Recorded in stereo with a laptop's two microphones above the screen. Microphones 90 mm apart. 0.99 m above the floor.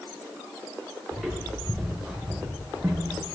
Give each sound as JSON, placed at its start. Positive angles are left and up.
{"t": 1.1, "sound": "footsteps", "side_deg": 5, "distance_m": 3.0}